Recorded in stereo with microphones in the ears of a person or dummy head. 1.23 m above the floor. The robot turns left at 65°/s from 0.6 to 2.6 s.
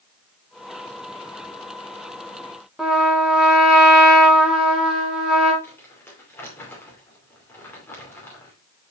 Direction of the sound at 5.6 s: 15° left (ahead or behind).